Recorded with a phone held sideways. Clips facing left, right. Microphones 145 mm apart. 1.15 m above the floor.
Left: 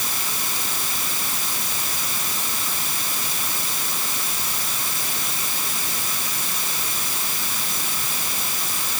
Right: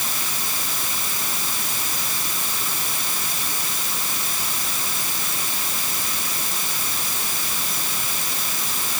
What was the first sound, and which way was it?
Only background noise.